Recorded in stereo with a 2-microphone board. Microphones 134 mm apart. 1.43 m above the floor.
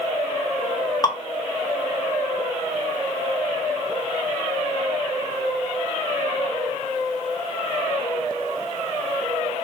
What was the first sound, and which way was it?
Dripping, 30° left (ahead or behind).